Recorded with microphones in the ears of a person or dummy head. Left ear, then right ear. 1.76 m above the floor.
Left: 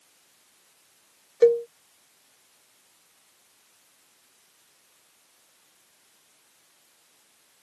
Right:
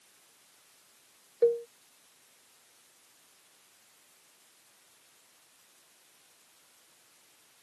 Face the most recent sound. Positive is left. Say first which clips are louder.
# left 7 dB
turn(degrees=75)  # may be behind; listen again after turning